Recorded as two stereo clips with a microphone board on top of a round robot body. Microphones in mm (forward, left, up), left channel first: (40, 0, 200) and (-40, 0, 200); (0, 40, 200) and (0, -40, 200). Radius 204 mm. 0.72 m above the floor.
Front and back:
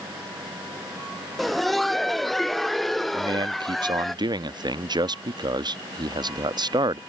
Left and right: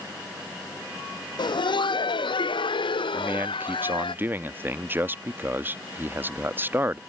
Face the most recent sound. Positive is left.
turn(degrees=-155)